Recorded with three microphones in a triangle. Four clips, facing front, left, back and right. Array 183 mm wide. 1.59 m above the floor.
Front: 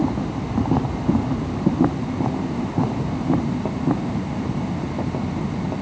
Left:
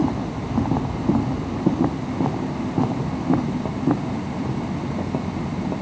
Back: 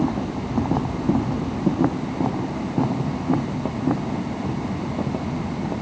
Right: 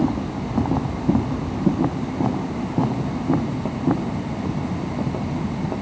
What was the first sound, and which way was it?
Only background noise.